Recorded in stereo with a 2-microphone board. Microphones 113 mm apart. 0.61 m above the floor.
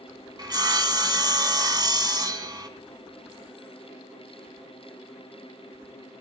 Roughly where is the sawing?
Right.